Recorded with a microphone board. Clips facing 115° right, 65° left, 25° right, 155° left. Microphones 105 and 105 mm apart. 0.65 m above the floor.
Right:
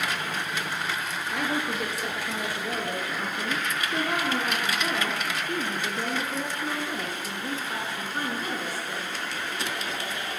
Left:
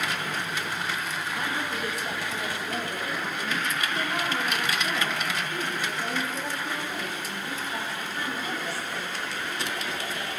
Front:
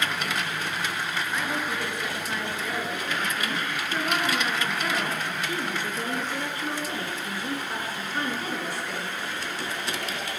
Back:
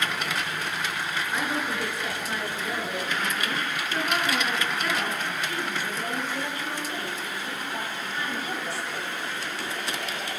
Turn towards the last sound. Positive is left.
turn(degrees=-65)